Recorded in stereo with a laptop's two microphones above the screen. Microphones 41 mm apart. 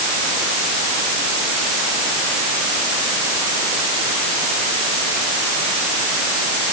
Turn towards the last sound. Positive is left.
No sound to turn to.